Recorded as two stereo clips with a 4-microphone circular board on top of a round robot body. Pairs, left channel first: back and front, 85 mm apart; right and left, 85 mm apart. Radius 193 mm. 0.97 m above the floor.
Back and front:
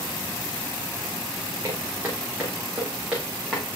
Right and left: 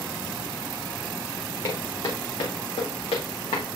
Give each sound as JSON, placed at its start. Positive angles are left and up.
{"t": 1.6, "sound": "footsteps", "azimuth_deg": -60, "distance_m": 3.5}